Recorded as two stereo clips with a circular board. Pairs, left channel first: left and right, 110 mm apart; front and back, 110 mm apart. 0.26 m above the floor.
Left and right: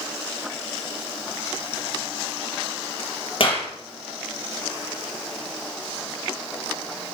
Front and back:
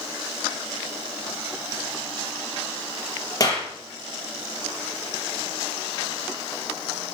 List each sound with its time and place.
3.4 s a clap: 55° left, 4.5 m